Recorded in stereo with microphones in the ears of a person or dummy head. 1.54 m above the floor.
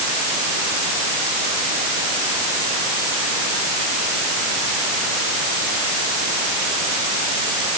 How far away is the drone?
No drone in this recording.